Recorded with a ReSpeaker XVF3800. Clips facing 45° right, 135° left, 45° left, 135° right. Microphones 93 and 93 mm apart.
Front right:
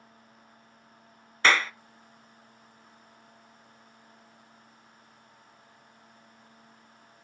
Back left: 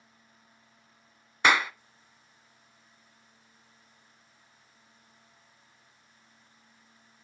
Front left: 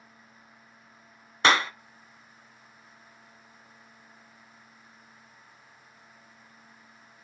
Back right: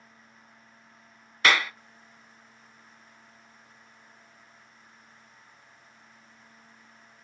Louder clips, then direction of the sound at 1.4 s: Even, front left 2 dB; 70° left.